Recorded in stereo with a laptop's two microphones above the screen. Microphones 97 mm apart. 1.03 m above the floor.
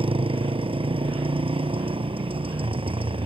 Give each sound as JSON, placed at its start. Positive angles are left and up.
{"t": 0.0, "sound": "a motorcycle", "side_deg": -70}